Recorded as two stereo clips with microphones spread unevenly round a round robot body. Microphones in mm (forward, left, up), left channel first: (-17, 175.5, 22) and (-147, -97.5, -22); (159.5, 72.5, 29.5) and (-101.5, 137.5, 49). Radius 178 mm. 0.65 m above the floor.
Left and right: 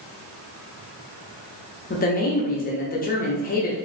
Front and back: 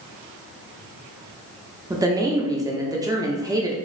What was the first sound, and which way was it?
A woman speaking, 95° left.